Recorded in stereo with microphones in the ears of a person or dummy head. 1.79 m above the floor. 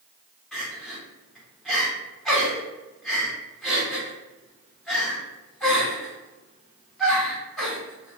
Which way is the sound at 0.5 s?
5° left (ahead or behind).